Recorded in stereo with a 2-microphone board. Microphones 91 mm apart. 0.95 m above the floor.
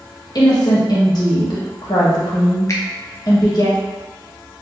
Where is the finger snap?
35° left (ahead or behind), 0.6 m.